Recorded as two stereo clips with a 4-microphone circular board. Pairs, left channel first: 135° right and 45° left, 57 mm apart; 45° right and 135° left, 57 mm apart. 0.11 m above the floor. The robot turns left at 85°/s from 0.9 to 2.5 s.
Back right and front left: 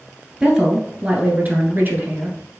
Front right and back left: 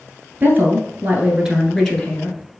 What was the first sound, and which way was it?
A woman speaking, 115° left.